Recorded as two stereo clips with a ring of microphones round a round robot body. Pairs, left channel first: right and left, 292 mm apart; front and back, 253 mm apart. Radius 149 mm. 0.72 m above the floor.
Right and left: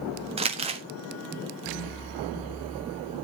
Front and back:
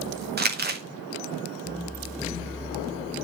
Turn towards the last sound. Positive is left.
turn(degrees=150)